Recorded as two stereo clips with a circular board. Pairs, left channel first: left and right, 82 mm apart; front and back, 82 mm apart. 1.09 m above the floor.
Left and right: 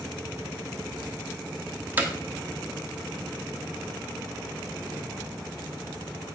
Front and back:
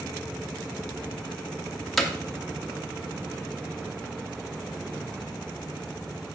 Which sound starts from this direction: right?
Hammering, at 2.0 s.